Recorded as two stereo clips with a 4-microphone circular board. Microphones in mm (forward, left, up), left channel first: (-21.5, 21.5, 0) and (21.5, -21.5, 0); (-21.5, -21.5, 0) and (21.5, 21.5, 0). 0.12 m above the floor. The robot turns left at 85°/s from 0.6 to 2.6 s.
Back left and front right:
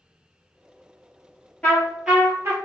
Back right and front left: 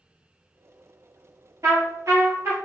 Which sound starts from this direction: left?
A trumpet, at 1.6 s.